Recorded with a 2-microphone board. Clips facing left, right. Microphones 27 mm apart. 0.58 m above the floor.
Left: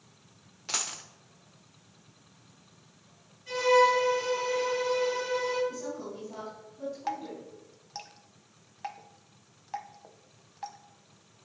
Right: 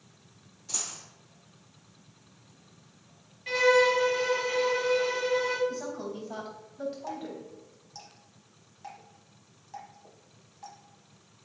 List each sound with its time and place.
0.7 s a dropped coin: 65° left (ahead or behind), 0.8 m
3.5 s a violin: 80° right, 2.5 m
5.7 s a woman speaking: 70° right (ahead or behind), 3.5 m
7.1 s dripping: 50° left (ahead or behind), 0.7 m